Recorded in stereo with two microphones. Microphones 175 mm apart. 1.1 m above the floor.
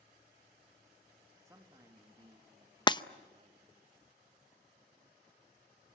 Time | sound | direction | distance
1.4 | a man speaking | 15° right (ahead or behind) | 1.9 m
2.9 | breaking glass | 25° left (ahead or behind) | 0.5 m